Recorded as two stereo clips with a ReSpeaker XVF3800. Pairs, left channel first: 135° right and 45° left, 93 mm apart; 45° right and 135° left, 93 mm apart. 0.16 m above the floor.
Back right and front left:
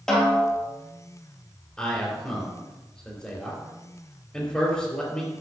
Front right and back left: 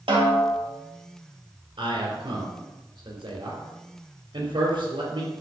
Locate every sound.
0.1 s a snare drum: 140° left, 3.5 m
1.8 s a man speaking: 145° left, 4 m